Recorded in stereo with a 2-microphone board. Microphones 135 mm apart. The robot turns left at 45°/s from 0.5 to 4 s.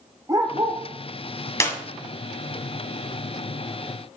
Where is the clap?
20° left (ahead or behind), 1.5 m; by 1.8 s 15° left (ahead or behind), 1.5 m.